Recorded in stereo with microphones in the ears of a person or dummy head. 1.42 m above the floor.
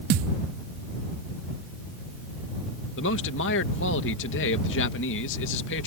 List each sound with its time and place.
0.1 s a thud: 40° right (ahead or behind)
3.0 s a man speaking: 60° left (ahead or behind)